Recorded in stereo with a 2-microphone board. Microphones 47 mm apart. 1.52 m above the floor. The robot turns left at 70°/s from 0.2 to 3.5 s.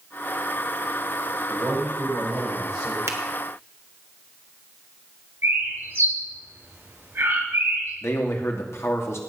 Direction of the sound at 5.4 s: 45° right (ahead or behind).